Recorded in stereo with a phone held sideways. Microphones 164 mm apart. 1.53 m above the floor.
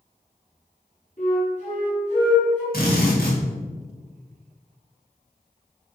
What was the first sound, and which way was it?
A flute, 45° left (ahead or behind).